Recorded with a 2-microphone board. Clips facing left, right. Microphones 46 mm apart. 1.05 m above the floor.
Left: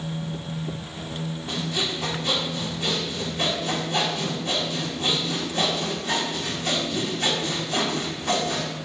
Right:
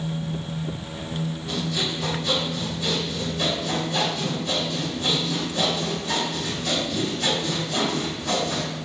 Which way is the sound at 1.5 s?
40° left (ahead or behind).